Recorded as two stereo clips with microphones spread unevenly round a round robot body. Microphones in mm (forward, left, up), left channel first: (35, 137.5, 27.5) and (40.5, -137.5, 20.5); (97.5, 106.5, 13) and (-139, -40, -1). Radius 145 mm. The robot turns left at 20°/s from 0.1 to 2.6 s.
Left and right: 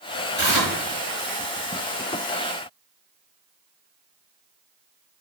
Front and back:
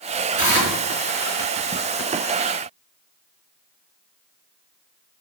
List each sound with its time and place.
0.4 s tearing paper: 170° right, 3.5 m; by 0.7 s 175° right, 3.5 m